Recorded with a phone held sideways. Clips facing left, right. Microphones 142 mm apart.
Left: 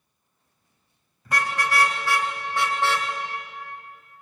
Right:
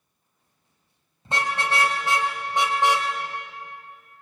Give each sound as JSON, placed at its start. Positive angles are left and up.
{"t": 1.2, "sound": "a car horn", "side_deg": -25, "distance_m": 4.0}